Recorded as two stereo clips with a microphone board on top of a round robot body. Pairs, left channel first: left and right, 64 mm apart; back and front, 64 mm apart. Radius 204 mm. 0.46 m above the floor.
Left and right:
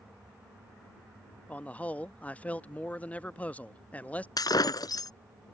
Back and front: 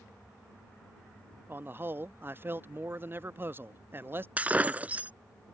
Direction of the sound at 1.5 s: 35° left.